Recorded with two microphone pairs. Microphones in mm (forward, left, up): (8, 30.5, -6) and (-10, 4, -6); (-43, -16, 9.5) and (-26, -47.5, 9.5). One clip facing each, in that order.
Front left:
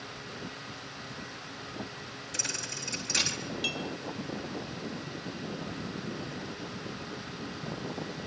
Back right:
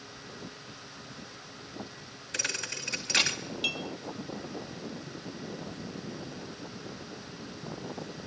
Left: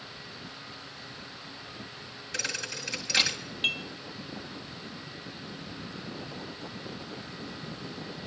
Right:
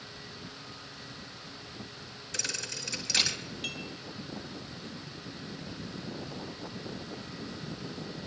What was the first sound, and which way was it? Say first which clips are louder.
A thud: back right 3 dB, left 3 dB; 165° right.